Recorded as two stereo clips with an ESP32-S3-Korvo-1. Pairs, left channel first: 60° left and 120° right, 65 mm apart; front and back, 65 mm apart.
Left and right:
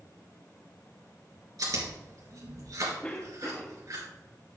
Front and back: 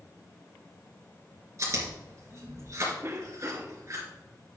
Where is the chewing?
140° right, 3.5 m.